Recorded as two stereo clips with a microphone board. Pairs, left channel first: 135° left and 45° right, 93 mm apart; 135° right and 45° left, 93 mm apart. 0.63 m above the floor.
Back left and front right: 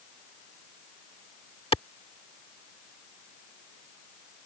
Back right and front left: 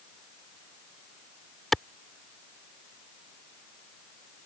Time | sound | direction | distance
1.7 | a clap | 140° left | ?